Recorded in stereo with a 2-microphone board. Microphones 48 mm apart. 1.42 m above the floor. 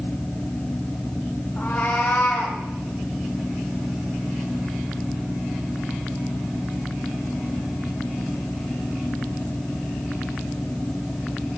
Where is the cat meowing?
40° left (ahead or behind), 1.7 m; by 2.6 s 45° left (ahead or behind), 1.6 m.